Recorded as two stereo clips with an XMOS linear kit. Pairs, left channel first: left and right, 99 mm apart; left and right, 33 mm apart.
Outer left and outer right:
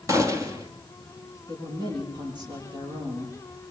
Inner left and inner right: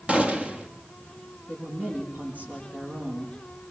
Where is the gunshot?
35° right (ahead or behind), 2.5 m.